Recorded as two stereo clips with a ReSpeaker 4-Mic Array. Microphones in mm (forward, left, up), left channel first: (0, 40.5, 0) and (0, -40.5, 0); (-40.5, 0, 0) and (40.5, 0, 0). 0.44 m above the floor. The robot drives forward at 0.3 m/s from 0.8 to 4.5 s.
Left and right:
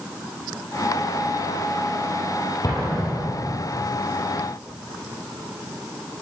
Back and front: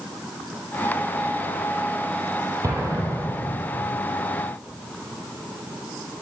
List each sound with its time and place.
2.6 s an explosion: 45° left, 4.5 m; by 3.5 s 50° left, 4.5 m